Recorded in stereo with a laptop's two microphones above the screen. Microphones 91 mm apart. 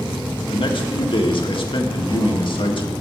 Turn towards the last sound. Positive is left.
turn(degrees=65)  # may be behind; listen again after turning